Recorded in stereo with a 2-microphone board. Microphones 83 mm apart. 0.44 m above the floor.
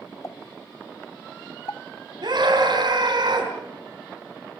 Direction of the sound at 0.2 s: 50° left (ahead or behind).